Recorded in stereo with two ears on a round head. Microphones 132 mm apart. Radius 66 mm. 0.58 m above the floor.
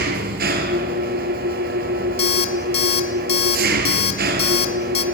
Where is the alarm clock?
40° left (ahead or behind), 1.8 m.